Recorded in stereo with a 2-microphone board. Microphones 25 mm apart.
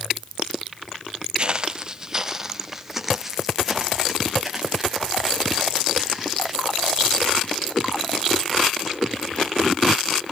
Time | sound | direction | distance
1.4 | footsteps | 40° right (ahead or behind) | 0.7 m